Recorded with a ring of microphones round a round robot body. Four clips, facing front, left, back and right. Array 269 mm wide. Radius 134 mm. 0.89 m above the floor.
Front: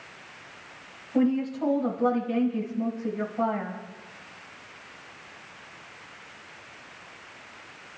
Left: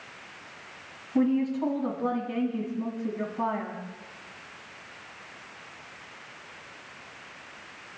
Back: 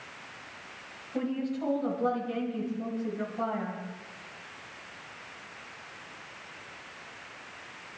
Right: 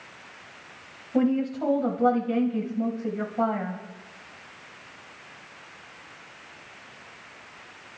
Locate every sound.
1.1 s a woman speaking: 75° right, 5.5 m